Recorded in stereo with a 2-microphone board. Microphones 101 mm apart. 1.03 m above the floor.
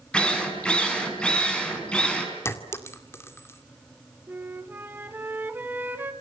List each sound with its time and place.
0.1 s a drill: 10° left (ahead or behind), 5.5 m
2.5 s a clink: 25° left (ahead or behind), 2 m
4.3 s a flute: 20° right (ahead or behind), 1.9 m